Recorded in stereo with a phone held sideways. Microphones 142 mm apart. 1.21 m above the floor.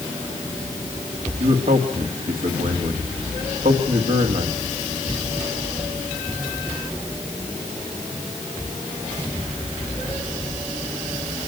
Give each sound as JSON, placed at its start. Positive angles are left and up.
{"t": 1.4, "sound": "a man speaking", "side_deg": -75, "distance_m": 2.5}